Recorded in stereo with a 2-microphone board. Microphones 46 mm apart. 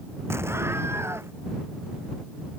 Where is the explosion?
75° right (ahead or behind).